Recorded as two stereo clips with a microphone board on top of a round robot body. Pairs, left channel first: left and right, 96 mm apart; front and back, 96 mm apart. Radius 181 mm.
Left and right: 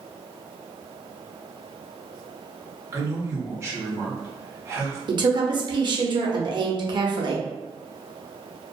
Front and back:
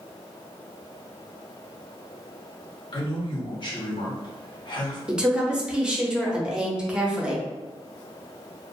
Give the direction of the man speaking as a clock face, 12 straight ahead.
1 o'clock.